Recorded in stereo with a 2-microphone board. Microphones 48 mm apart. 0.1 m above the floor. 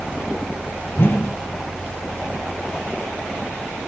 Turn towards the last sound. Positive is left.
turn(degrees=50)  # may be behind; listen again after turning